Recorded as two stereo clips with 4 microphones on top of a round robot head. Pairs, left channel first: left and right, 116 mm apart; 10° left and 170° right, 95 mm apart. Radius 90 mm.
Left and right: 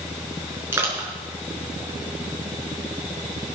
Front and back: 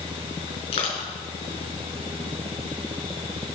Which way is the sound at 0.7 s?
20° right.